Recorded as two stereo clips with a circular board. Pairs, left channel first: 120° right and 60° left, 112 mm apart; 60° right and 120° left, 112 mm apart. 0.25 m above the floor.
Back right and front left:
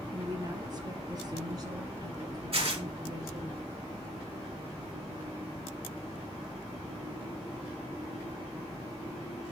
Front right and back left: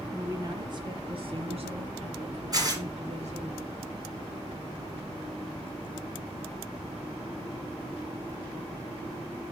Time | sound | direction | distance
0.1 | a woman speaking | 70° left | 1.1 m
2.5 | tearing paper | 75° left | 2.5 m